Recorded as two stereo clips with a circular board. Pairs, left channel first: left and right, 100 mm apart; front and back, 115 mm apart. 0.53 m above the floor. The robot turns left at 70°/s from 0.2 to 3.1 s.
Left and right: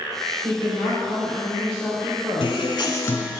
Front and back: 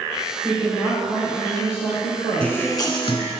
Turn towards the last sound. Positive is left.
turn(degrees=30)